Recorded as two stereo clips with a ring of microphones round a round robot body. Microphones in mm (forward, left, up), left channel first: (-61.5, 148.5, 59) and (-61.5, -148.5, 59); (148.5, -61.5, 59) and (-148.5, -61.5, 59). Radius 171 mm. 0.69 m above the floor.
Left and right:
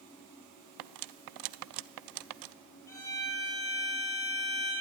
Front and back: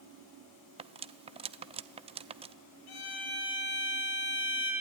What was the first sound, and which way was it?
Cutlery clinking, 110° right.